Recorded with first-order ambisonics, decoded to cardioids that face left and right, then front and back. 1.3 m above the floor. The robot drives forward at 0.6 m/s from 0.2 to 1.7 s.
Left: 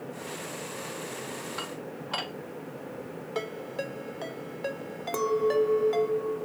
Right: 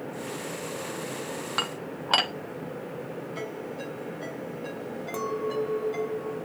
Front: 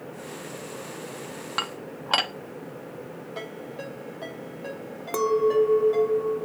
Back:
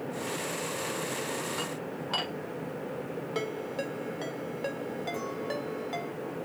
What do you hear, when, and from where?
1.6 s dishes clattering: 40° right, 0.7 m; by 2.3 s 50° right, 0.6 m
3.4 s a ringtone: 140° left, 2 m
5.1 s a clink: 20° left, 0.6 m